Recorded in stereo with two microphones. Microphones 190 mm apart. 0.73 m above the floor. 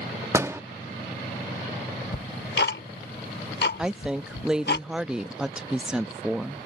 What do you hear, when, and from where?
0.3 s a door slam: 15° right (ahead or behind)
2.1 s ticking: 65° left (ahead or behind)
3.8 s a woman speaking: 5° right (ahead or behind)